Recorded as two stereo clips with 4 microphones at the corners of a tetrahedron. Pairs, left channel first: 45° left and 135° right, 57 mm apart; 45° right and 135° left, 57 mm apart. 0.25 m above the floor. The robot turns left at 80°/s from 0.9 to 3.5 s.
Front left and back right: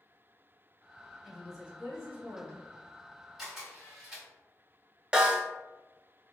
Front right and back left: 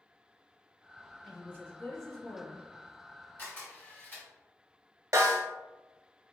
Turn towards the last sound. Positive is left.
turn(degrees=150)